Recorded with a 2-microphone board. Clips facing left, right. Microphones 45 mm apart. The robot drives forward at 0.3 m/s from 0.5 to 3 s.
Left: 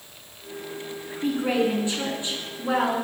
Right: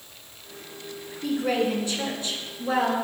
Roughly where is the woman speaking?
Left.